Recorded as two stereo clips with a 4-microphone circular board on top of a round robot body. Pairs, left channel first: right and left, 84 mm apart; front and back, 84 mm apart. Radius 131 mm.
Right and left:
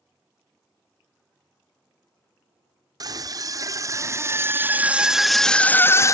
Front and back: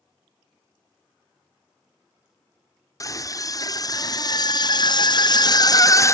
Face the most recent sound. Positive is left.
turn(degrees=-45)